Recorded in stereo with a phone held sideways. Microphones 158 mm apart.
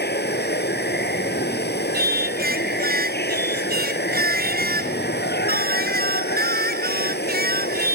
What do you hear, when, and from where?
0.0 s running water: 85° left
1.9 s singing: 65° right (ahead or behind)